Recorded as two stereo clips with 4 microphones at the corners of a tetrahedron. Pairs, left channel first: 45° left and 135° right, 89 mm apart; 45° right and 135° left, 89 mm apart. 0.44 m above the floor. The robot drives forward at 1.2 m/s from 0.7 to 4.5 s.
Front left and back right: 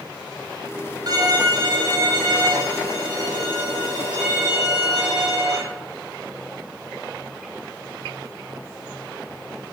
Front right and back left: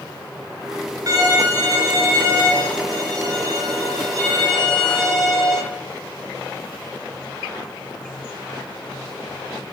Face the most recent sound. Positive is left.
turn(degrees=180)